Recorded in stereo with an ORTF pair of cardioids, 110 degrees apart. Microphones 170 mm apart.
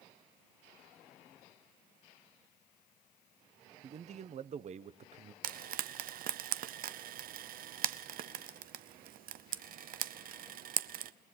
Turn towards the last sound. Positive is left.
turn(degrees=-60)